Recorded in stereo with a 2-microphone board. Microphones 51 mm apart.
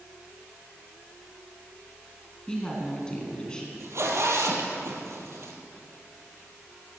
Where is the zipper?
65° right (ahead or behind), 2.5 m.